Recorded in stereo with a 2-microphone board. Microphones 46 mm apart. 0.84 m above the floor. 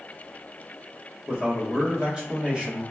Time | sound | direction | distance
1.3 | a man speaking | 20° right (ahead or behind) | 1.0 m